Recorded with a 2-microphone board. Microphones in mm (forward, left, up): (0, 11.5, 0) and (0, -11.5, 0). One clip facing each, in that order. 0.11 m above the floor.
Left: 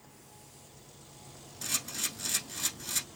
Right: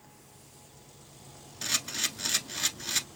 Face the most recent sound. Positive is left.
turn(degrees=-30)  # may be behind; listen again after turning